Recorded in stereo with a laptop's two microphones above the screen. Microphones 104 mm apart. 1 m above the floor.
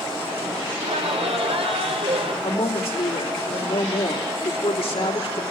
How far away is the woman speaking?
About 3 m.